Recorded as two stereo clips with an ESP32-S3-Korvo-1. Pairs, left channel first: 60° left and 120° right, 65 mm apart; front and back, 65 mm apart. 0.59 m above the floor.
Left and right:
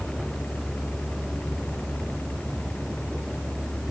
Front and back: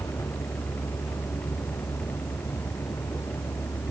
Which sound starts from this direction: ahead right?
A vehicle, at 0.0 s.